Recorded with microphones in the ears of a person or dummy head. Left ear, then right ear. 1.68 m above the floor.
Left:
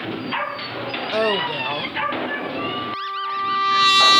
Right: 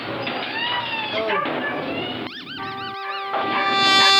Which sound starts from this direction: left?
A woman speaking, at 1.1 s.